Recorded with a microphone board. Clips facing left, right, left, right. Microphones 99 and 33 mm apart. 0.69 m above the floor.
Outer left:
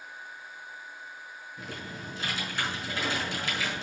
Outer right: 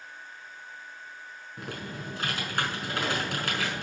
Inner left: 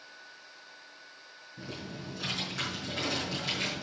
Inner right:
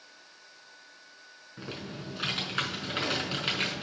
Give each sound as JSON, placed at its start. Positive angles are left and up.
{"t": 1.6, "sound": "typing on a keyboard", "side_deg": -55, "distance_m": 6.0}